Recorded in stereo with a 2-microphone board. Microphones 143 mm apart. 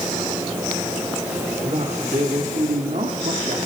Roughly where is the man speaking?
Right.